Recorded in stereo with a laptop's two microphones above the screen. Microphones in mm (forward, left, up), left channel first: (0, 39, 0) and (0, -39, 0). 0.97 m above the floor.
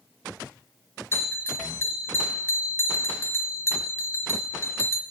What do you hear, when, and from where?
1.1 s a bell: 30° left (ahead or behind), 0.8 m